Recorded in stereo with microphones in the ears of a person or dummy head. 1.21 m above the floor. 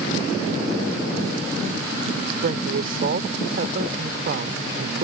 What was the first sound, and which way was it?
A woman speaking, 55° right (ahead or behind).